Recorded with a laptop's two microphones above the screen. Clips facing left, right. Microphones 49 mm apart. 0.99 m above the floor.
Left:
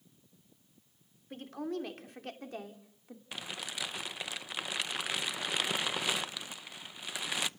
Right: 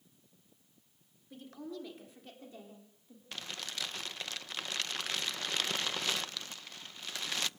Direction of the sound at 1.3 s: 55° left (ahead or behind).